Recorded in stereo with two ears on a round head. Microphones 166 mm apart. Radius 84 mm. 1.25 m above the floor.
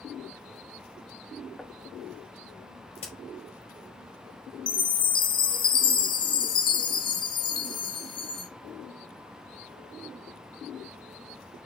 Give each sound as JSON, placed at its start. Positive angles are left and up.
{"t": 1.6, "sound": "knocking", "side_deg": 5, "distance_m": 0.8}
{"t": 3.0, "sound": "a crack", "side_deg": 35, "distance_m": 4.5}
{"t": 4.7, "sound": "a chime", "side_deg": 25, "distance_m": 1.0}